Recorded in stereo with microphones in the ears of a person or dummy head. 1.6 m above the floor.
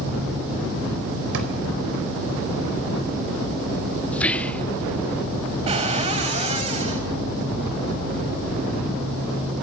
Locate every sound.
1.3 s a drawer: 75° right (ahead or behind), 4 m
4.1 s whispering: 10° left (ahead or behind), 0.5 m
5.7 s a cupboard door: 35° right (ahead or behind), 3.5 m